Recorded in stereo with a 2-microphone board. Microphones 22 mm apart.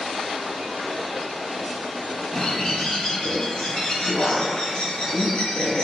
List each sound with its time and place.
2.3 s a bird: 50° left (ahead or behind), 4 m